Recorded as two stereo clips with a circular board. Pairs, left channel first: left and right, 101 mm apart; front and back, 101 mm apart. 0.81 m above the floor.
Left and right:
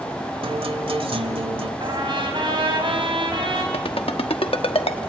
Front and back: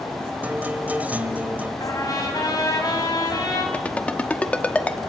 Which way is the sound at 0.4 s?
105° right.